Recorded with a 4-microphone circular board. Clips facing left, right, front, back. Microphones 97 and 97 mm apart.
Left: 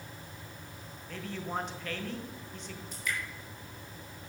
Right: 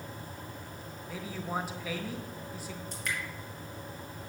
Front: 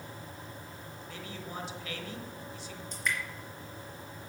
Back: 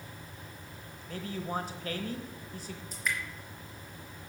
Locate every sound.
1.1 s a man speaking: 170° right, 1.2 m
2.9 s dripping: 95° right, 3 m